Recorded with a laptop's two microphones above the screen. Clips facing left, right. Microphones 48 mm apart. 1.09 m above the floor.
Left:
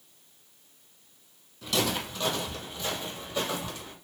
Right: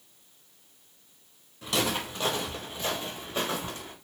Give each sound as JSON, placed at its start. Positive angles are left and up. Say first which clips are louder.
{"t": 1.6, "sound": "footsteps", "louder": "even", "side_deg": -15, "distance_m": 1.4}